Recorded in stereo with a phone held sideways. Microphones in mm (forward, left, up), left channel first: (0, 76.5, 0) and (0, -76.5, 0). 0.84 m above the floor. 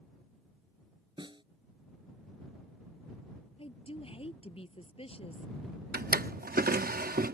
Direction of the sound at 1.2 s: 30° right (ahead or behind).